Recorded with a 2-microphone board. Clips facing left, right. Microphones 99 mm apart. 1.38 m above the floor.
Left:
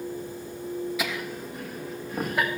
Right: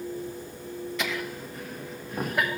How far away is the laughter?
About 1.1 m.